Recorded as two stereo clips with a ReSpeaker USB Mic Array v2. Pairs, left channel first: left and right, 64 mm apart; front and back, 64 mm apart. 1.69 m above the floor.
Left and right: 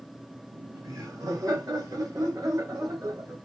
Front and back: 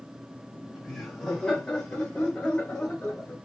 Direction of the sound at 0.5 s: 85° right.